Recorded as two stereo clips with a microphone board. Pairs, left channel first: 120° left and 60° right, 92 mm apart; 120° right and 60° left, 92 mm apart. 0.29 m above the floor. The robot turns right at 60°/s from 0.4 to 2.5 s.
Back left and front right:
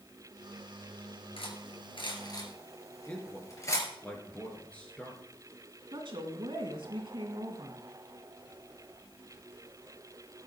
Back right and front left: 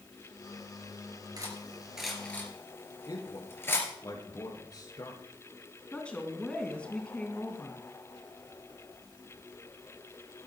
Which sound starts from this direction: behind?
A man speaking, at 3.1 s.